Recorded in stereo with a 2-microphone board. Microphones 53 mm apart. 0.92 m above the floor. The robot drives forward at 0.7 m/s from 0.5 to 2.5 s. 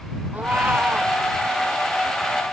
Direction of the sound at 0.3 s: 35° right (ahead or behind).